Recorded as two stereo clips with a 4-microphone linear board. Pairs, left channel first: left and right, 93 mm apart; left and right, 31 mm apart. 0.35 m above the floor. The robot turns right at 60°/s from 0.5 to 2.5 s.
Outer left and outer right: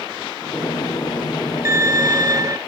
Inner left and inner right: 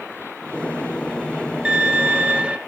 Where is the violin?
125° right, 1.4 m; by 2.6 s 75° right, 1.4 m.